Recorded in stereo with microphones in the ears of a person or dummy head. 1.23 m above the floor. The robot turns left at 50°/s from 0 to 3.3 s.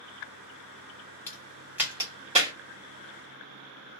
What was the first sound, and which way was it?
A crack, 20° left (ahead or behind).